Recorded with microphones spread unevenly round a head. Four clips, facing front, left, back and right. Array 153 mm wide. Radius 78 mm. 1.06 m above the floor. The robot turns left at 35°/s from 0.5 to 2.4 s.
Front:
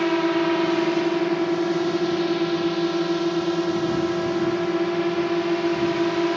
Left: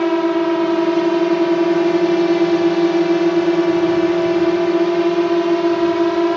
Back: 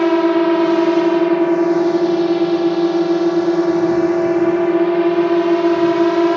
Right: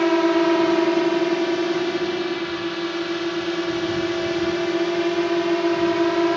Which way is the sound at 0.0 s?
Straight behind.